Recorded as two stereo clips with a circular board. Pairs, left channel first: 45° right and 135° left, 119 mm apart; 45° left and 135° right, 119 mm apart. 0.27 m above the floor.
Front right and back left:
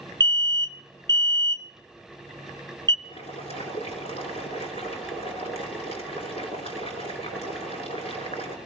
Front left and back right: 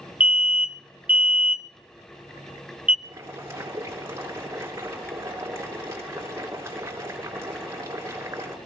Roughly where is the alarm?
Behind left.